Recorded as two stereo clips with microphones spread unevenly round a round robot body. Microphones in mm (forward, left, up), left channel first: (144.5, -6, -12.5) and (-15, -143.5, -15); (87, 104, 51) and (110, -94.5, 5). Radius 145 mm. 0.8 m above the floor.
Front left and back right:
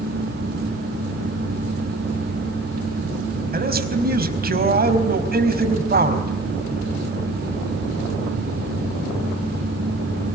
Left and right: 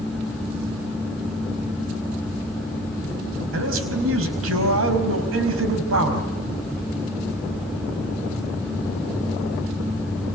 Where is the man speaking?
95° right, 4.5 m.